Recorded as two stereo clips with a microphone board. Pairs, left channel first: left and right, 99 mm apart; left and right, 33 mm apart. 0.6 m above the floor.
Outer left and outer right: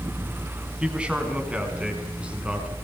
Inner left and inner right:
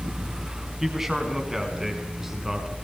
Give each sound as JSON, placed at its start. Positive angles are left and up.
{"t": 0.8, "sound": "a man speaking", "side_deg": -10, "distance_m": 5.5}